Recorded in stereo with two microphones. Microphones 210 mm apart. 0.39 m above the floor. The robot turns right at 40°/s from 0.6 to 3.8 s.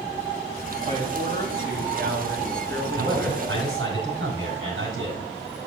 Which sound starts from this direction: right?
A man speaking, at 3.0 s.